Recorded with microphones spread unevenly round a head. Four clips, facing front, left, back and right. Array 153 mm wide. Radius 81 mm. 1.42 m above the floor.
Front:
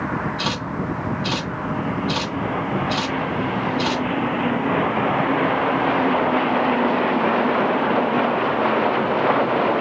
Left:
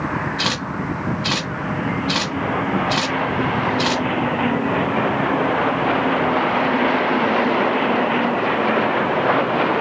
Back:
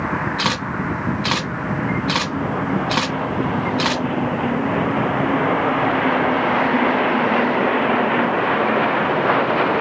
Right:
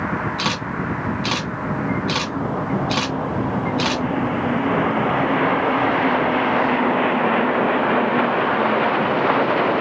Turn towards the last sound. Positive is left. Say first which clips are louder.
# even, back 3 dB
turn(degrees=-175)